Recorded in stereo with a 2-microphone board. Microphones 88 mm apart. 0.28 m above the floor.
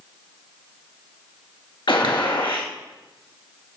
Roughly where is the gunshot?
Left.